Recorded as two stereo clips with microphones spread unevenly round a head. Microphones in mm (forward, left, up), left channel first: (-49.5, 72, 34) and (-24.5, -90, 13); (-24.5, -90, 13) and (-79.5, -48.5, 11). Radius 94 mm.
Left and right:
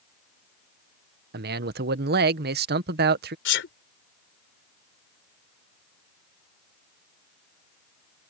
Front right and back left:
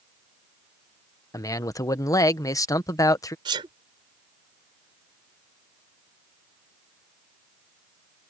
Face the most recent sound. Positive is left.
turn(degrees=105)